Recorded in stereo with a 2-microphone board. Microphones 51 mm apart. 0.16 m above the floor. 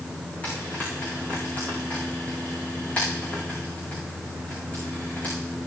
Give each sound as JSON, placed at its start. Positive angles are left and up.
{"t": 0.4, "sound": "frying", "side_deg": 25, "distance_m": 8.0}